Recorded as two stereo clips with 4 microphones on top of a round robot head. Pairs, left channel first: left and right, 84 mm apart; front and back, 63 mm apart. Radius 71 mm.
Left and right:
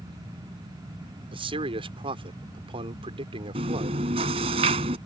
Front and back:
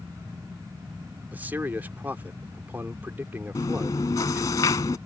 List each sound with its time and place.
1.3 s a man speaking: 110° right
3.5 s chewing: 55° right